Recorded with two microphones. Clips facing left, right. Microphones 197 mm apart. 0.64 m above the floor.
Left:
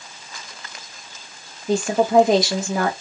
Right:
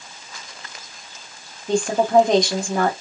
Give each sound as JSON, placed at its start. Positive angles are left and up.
{"t": 1.7, "sound": "a woman speaking", "side_deg": 5, "distance_m": 0.9}